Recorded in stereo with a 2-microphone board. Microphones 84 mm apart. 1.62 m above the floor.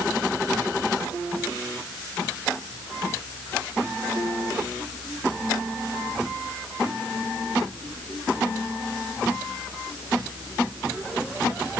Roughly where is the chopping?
No chopping in this recording.